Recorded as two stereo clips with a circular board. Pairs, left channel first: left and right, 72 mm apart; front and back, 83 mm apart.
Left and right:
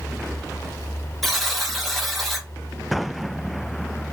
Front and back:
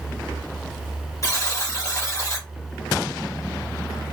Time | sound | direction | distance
1.2 | a buzzer | 5° left | 0.9 m